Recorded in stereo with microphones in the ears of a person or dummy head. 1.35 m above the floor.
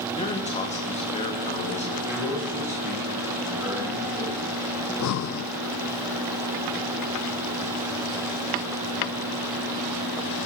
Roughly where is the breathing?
Left.